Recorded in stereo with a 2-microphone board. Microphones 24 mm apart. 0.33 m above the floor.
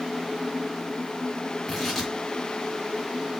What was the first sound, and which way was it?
Tearing paper, 10° left (ahead or behind).